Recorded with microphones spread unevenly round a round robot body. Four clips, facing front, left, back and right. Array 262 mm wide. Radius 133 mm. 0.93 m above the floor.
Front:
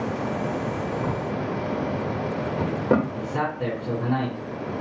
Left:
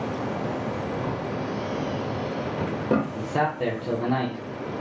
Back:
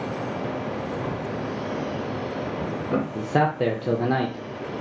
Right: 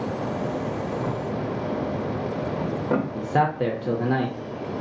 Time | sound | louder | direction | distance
1.0 | a drawer | right 1 dB, front 2 dB | 20° left | 0.9 m
3.1 | a man speaking | right 3 dB, back 5 dB | 160° right | 0.7 m